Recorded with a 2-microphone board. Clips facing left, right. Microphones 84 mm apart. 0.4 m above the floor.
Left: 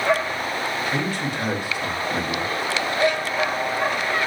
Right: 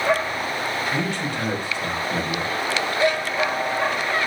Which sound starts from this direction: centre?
A man speaking, at 0.9 s.